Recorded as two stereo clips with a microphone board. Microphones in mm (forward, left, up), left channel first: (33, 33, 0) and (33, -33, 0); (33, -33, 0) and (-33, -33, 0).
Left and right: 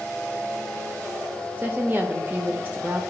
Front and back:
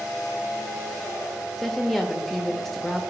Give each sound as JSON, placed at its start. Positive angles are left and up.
{"t": 1.6, "sound": "a woman speaking", "azimuth_deg": -85, "distance_m": 0.8}